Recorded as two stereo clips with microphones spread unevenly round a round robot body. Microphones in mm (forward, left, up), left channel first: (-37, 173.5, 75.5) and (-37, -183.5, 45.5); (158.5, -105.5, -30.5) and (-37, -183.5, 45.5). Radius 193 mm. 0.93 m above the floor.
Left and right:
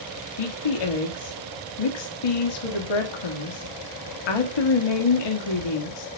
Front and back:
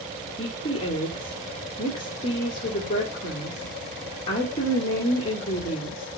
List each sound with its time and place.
0.4 s a woman speaking: 95° left, 1.8 m